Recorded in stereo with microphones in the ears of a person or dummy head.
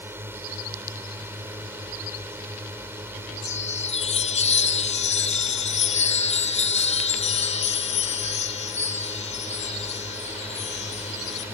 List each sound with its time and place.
0.0 s a drone: 15° right (ahead or behind)
3.4 s a chime: 35° left (ahead or behind)